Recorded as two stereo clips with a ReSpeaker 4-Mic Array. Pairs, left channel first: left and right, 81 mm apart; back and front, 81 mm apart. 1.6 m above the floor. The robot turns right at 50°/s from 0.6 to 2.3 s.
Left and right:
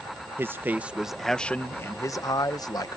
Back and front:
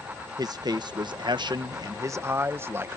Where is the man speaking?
30° right; by 3.0 s 55° left.